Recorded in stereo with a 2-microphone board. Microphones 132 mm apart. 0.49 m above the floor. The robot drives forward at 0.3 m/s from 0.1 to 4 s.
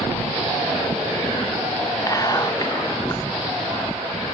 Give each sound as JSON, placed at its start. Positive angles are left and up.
{"t": 2.1, "sound": "whispering", "side_deg": 30, "distance_m": 0.8}